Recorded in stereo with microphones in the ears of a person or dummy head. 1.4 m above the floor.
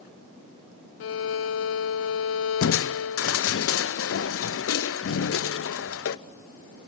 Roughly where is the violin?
Left.